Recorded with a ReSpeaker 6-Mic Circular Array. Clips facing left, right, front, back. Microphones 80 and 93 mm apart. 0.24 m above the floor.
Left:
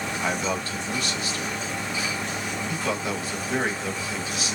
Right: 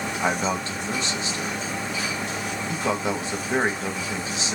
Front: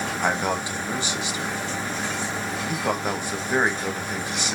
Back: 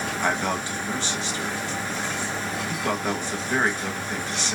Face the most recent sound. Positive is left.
turn(degrees=-60)